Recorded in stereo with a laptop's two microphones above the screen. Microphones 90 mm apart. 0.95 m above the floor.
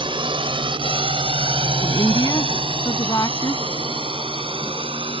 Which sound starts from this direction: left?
A woman speaking, at 1.8 s.